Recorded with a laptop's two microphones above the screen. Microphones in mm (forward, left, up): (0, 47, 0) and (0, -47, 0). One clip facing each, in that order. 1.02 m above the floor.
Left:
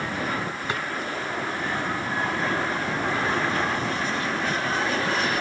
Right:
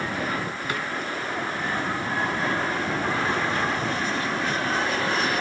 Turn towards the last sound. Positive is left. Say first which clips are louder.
# even
turn(degrees=30)  # may be behind; listen again after turning